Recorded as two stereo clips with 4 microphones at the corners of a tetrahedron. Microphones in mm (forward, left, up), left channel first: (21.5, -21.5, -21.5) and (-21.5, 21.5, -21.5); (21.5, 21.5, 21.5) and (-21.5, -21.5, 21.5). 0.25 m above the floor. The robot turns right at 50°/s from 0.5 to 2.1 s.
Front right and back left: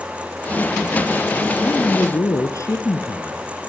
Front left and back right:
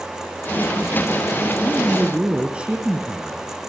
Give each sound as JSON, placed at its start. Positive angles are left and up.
{"t": 1.6, "sound": "a man speaking", "azimuth_deg": -95, "distance_m": 3.0}